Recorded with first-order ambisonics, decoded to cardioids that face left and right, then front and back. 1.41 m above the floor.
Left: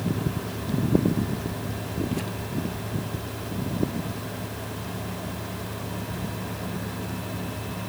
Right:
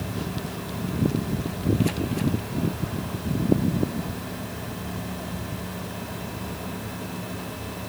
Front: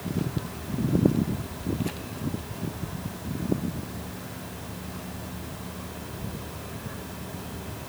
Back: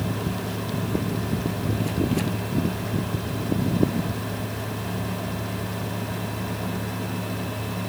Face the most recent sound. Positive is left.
No sound to turn to.